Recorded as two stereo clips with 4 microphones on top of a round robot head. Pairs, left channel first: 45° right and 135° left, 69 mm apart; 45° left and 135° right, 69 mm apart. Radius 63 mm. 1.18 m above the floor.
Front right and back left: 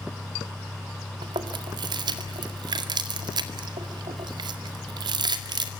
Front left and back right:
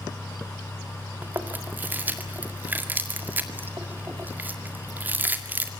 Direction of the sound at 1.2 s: 155° left.